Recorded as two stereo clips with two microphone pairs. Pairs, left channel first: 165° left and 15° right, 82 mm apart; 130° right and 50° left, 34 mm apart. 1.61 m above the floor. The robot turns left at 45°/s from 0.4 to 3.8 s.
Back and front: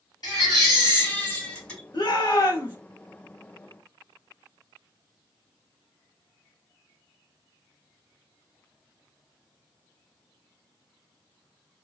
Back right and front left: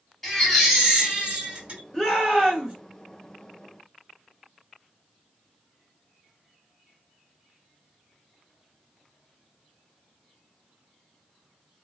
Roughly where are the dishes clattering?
I don't hear dishes clattering.